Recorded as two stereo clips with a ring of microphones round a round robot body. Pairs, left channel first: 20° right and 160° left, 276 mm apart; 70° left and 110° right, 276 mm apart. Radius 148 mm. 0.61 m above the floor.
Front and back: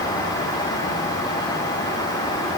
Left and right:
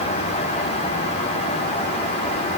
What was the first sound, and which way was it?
Only background noise.